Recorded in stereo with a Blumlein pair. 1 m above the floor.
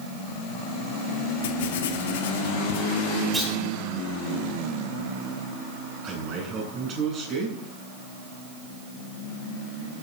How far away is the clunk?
About 8 m.